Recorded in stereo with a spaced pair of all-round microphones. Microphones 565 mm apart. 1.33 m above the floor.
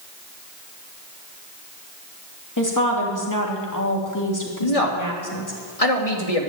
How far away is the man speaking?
About 2.5 m.